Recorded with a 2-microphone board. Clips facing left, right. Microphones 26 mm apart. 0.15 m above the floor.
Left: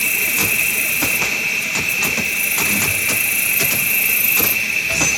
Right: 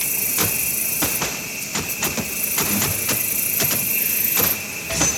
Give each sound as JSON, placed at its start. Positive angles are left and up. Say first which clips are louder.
{"t": 0.0, "sound": "an insect", "louder": "left 7 dB", "side_deg": 60, "distance_m": 0.9}